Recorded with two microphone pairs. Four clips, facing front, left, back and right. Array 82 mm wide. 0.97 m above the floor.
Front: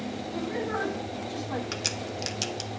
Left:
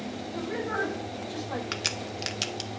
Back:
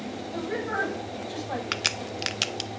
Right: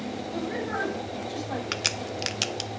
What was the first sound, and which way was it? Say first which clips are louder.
A woman speaking: even, back 2 dB; 165° right.